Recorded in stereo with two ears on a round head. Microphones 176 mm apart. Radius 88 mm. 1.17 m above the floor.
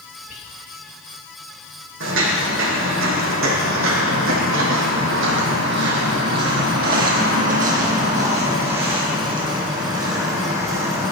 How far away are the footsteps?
About 4 m.